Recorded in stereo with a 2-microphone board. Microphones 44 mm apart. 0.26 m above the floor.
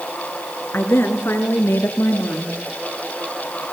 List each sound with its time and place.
0.7 s a woman speaking: 70° left (ahead or behind), 3.5 m; by 2.6 s 75° left (ahead or behind), 4.5 m